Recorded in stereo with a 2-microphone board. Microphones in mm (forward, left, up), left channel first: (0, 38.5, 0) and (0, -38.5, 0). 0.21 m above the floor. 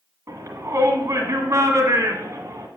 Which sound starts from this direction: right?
A shout, at 0.3 s.